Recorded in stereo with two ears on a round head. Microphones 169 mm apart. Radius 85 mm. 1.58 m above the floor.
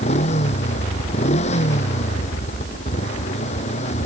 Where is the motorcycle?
35° left (ahead or behind).